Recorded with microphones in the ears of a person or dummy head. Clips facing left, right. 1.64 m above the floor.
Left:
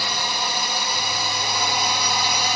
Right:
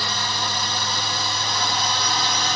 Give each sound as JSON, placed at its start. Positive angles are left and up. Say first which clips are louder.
{"t": 0.0, "sound": "a drone", "louder": "left 1 dB", "side_deg": 10}